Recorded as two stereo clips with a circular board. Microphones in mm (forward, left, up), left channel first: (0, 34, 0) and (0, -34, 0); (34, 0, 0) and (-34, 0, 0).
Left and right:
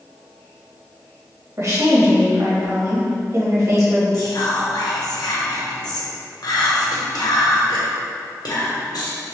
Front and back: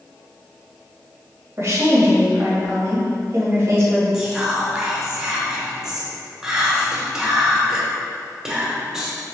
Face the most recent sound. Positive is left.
turn(degrees=100)